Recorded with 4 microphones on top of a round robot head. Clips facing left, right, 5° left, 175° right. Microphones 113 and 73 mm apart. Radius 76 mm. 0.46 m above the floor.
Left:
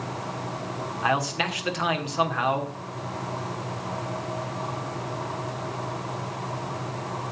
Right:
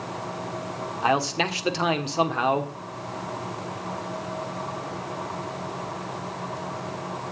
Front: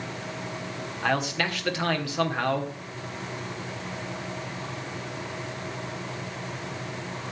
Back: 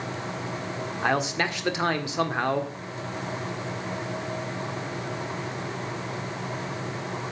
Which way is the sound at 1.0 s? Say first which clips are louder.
Right 2 dB, back 1 dB; 120° right.